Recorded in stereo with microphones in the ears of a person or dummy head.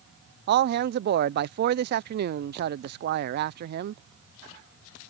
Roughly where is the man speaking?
Right.